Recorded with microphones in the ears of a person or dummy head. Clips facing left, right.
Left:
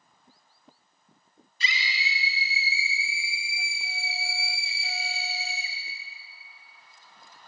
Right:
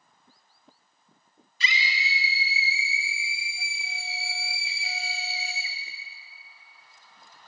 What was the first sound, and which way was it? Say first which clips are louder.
A scream: right 2 dB; 70° right (ahead or behind).